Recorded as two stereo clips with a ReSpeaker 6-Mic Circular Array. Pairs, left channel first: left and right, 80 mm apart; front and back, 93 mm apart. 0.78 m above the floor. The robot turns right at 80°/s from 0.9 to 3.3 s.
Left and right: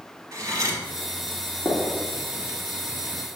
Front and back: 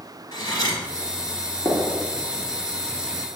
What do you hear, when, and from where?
0.3 s cutlery clinking: 40° right, 1.8 m
1.6 s a gunshot: 115° left, 1.3 m; by 1.9 s 135° left, 1.3 m